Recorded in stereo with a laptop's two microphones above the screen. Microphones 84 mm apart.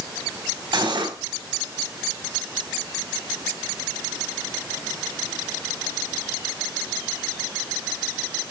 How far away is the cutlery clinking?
About 3.5 m.